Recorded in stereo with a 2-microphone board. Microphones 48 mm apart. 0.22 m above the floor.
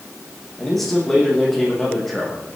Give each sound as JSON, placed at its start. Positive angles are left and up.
{"t": 0.6, "sound": "a man speaking", "side_deg": 5, "distance_m": 8.5}